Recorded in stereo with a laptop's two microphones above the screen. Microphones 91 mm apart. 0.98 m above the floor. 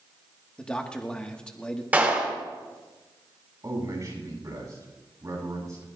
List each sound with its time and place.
0.6 s a man speaking: 10° left (ahead or behind), 1.3 m
1.9 s a clap: 20° right (ahead or behind), 2 m
3.6 s a man speaking: 35° right (ahead or behind), 7.5 m